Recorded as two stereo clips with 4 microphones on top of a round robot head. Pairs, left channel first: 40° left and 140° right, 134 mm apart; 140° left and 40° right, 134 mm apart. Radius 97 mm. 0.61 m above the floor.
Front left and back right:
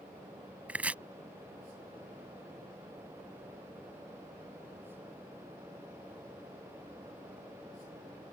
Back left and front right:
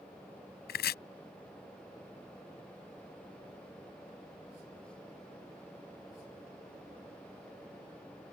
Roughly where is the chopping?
Behind left.